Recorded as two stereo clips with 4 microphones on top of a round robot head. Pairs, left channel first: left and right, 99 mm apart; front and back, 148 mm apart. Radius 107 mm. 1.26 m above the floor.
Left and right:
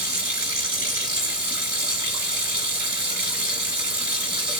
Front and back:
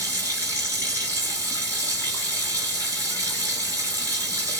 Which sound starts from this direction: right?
Running water, at 0.0 s.